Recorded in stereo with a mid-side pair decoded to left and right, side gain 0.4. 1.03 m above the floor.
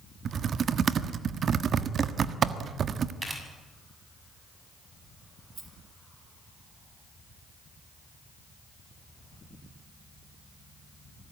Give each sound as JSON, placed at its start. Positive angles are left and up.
{"t": 0.2, "sound": "typing on a keyboard", "azimuth_deg": -55, "distance_m": 1.4}
{"t": 3.2, "sound": "a camera shutter", "azimuth_deg": -20, "distance_m": 7.0}
{"t": 5.5, "sound": "a rattle", "azimuth_deg": -40, "distance_m": 6.0}